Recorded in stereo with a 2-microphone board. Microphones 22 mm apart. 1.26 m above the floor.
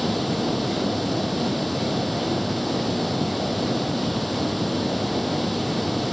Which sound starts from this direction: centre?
Running water, at 0.0 s.